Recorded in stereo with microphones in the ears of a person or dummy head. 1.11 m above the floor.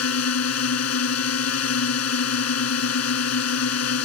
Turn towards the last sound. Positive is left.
turn(degrees=80)